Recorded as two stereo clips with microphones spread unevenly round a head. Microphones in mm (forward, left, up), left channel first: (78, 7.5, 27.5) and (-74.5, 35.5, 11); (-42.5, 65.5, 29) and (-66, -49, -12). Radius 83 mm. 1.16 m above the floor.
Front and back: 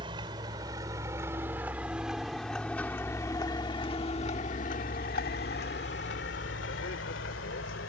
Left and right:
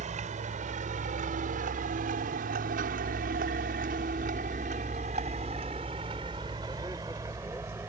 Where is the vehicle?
125° right; by 7.9 s 20° right.